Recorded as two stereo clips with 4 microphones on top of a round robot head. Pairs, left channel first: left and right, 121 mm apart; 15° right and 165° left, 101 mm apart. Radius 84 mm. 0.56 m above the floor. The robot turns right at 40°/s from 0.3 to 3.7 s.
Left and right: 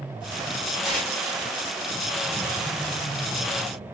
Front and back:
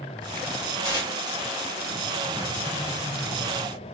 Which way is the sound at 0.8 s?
5° right.